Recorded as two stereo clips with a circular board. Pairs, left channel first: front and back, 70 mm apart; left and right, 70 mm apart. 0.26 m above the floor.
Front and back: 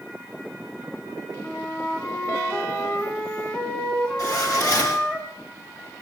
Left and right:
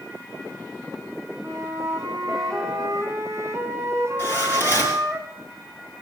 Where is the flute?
60° right, 1.6 m.